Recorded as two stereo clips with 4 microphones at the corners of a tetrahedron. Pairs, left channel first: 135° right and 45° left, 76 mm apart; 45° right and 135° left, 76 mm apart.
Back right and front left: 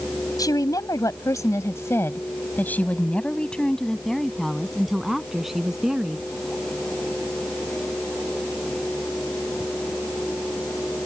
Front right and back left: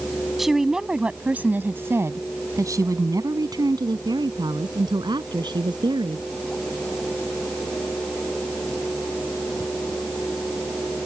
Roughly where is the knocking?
No knocking in this recording.